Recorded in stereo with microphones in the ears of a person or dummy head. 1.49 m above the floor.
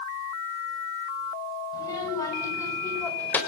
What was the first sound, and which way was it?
A child speaking, 15° left (ahead or behind).